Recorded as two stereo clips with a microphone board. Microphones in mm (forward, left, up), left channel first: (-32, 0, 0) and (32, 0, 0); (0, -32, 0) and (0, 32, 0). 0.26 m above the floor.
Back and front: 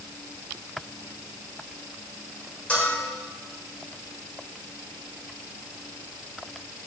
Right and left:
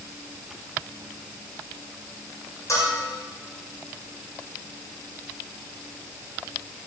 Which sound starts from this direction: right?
A bell, at 2.7 s.